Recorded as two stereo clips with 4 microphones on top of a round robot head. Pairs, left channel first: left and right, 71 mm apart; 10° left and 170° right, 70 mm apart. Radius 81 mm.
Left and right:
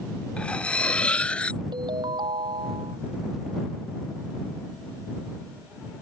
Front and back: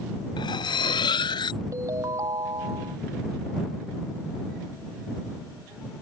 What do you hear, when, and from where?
0.4 s cutlery clinking: 15° left
1.7 s a ringtone: 120° right